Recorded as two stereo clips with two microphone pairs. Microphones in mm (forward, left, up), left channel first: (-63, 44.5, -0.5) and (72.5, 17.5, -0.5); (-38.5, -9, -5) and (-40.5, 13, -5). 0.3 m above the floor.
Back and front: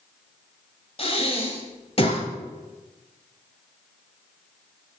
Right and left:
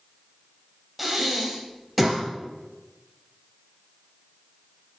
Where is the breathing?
175° left, 1.6 m.